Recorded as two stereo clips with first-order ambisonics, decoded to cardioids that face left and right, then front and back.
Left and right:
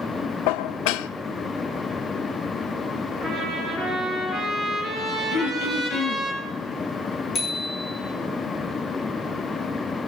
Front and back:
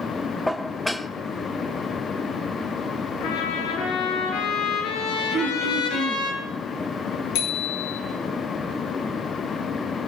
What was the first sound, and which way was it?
Dishes clattering, 90° left.